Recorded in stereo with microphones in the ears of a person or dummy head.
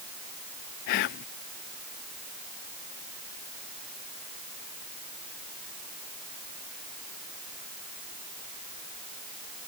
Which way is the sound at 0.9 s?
60° left (ahead or behind).